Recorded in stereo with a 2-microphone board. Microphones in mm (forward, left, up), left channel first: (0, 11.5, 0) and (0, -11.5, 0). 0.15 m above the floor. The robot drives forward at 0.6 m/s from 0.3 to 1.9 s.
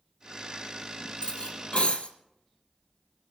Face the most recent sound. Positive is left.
turn(degrees=60)  # may be behind; listen again after turning